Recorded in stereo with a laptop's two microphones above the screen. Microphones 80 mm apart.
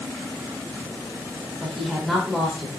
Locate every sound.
1.6 s a woman speaking: centre (ahead or behind), 4.5 m